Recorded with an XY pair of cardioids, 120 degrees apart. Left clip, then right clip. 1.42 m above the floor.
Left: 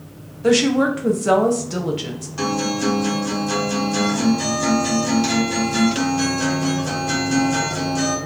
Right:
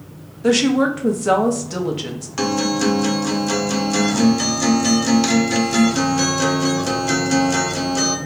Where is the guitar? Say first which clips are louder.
Right 2 dB; 50° right, 0.7 m.